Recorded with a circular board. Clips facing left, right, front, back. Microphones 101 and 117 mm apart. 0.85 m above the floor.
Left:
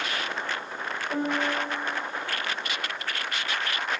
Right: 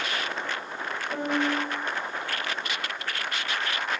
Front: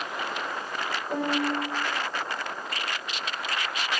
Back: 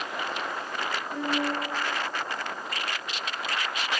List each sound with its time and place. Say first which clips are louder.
1.1 s a piano: right 1 dB, front 3 dB; 20° left, 3 m